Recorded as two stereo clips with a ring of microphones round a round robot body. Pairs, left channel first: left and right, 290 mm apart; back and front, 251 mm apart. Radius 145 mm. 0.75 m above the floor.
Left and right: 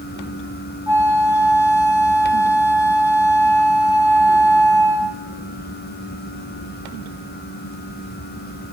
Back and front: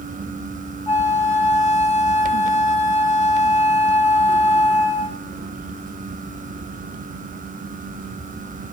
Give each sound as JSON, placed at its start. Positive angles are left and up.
{"t": 0.9, "sound": "a flute", "azimuth_deg": 80, "distance_m": 3.0}